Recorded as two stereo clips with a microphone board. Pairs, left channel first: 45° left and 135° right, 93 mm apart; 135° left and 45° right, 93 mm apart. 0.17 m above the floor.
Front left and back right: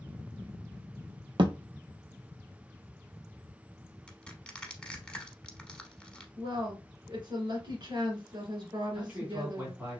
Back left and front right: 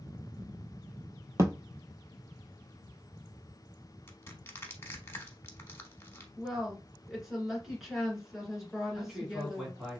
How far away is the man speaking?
About 1.6 m.